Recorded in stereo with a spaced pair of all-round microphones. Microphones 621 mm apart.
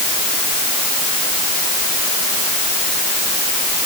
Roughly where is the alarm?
I don't hear an alarm.